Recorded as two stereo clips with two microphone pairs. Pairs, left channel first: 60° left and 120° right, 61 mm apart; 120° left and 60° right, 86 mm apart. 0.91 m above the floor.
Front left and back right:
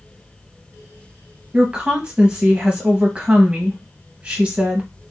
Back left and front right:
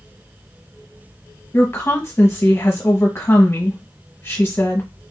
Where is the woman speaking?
175° left, 0.8 m.